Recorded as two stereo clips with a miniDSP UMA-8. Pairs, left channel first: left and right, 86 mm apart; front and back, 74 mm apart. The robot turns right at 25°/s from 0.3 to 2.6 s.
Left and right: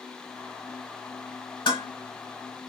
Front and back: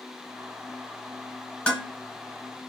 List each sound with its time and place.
1.7 s dishes clattering: 75° left, 1.9 m; by 1.9 s 80° left, 1.9 m